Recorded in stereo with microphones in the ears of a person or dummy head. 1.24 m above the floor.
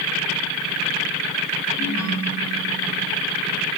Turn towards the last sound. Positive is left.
turn(degrees=35)  # may be behind; listen again after turning